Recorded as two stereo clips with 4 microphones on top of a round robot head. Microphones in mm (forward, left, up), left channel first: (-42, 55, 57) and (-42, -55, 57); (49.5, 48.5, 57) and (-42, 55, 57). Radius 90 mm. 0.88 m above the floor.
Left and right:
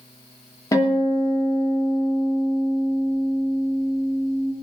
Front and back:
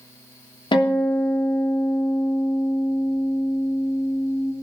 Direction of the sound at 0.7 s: 25° left.